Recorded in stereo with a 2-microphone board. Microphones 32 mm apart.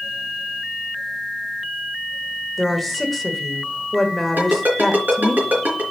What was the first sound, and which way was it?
A woman speaking, centre (ahead or behind).